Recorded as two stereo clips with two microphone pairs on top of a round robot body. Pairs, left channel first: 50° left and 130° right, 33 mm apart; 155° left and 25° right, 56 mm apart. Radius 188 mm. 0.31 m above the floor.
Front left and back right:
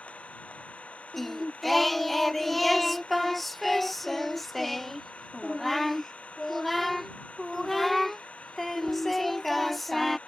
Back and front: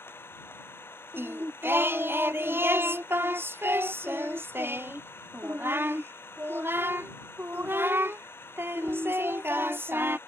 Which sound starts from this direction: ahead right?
Singing, at 1.1 s.